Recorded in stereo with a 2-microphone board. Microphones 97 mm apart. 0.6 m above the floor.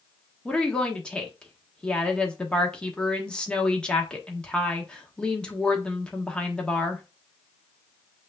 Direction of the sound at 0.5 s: 10° left (ahead or behind).